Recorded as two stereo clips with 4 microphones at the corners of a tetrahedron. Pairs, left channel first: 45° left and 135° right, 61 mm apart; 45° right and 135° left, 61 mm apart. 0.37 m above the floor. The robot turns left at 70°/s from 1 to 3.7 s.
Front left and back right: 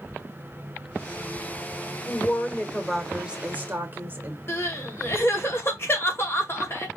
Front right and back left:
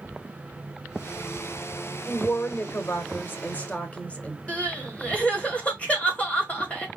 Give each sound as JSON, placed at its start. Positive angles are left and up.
{"t": 2.0, "sound": "a woman speaking", "azimuth_deg": 20, "distance_m": 1.1}
{"t": 4.5, "sound": "crying", "azimuth_deg": 15, "distance_m": 2.0}